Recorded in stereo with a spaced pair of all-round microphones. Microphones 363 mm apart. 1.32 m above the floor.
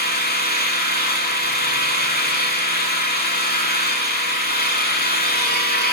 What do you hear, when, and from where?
0.0 s an engine running: 25° left (ahead or behind), 4.5 m